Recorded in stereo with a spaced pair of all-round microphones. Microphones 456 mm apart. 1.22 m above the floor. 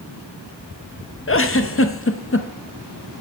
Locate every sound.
1.3 s a giggle: 30° left (ahead or behind), 0.7 m